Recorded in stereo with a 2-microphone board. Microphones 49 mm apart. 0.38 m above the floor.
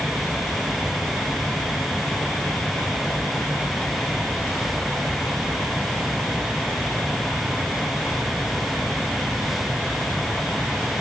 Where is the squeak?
I don't hear a squeak.